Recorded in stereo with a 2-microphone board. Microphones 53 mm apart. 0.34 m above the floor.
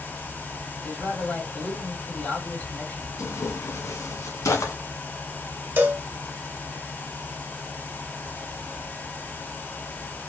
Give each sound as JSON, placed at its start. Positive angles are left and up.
{"t": 0.8, "sound": "a man speaking", "side_deg": 40, "distance_m": 2.5}
{"t": 3.2, "sound": "tearing paper", "side_deg": 75, "distance_m": 1.3}
{"t": 5.8, "sound": "a cowbell", "side_deg": -45, "distance_m": 0.9}